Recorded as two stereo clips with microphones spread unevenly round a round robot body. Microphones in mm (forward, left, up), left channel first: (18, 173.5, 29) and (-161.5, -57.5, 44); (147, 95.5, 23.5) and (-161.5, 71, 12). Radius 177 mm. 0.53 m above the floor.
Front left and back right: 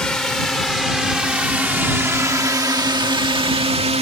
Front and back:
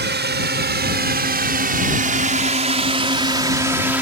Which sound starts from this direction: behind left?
A drone, at 0.0 s.